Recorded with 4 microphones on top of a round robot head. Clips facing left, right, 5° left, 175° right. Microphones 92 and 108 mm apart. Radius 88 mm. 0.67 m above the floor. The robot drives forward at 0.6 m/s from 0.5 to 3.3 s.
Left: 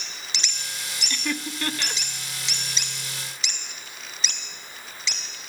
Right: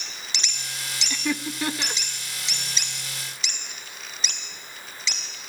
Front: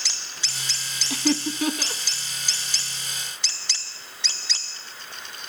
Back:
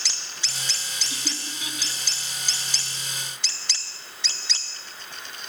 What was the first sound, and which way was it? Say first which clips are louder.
Laughter: right 2 dB, front 16 dB; 10° right.